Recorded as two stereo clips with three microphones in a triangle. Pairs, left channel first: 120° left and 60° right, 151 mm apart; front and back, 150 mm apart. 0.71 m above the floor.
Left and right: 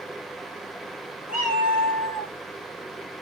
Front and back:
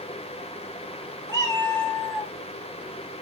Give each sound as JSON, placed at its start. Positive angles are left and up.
{"t": 1.3, "sound": "a cat meowing", "azimuth_deg": -70, "distance_m": 2.5}